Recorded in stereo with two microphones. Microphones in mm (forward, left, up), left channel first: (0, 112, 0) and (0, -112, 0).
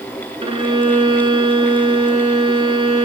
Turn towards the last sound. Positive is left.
turn(degrees=-25)  # may be behind; listen again after turning